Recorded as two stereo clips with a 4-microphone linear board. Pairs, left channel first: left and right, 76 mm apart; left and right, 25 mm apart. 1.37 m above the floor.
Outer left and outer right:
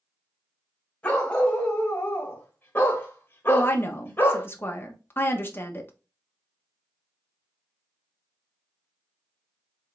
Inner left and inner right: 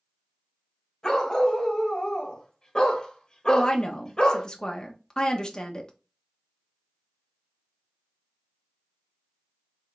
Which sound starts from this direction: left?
A woman speaking, at 3.5 s.